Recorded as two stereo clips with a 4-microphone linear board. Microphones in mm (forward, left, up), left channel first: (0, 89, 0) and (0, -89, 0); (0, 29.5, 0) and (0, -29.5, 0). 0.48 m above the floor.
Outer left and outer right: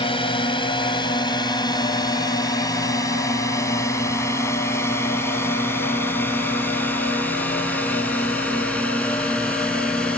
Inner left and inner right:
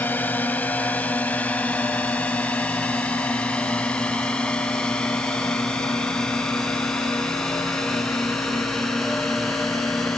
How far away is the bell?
No bell in this recording.